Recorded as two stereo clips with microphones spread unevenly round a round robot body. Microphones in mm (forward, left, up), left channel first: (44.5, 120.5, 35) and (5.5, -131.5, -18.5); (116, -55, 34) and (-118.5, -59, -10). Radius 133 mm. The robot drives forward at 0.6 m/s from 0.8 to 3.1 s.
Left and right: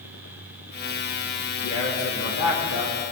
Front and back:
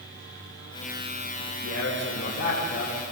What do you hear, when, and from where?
1.6 s a man speaking: 45° left, 4.5 m; by 3.0 s 50° left, 4 m